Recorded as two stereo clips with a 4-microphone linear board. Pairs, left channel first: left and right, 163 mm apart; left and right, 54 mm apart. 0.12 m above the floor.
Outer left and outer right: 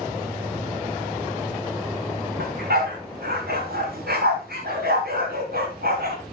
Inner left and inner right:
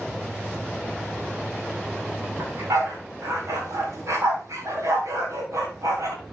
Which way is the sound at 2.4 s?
75° right (ahead or behind).